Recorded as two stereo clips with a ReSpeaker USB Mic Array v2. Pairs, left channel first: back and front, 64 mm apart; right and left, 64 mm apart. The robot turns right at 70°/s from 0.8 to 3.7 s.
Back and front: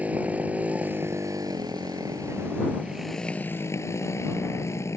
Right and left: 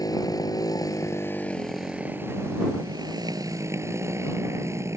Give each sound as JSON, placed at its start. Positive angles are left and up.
{"t": 0.0, "sound": "a motorcycle", "azimuth_deg": -70}